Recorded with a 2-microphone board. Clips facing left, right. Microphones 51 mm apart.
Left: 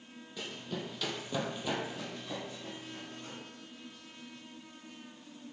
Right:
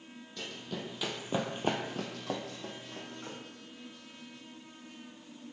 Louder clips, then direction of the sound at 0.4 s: Left 1 dB; 10° left (ahead or behind).